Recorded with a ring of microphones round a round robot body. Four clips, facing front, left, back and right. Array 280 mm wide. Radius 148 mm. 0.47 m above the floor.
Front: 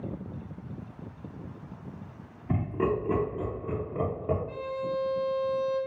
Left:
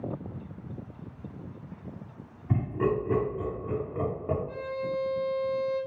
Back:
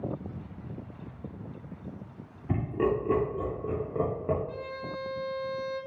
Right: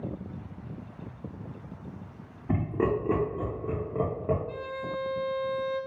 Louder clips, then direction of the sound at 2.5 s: Even, even; 115° right.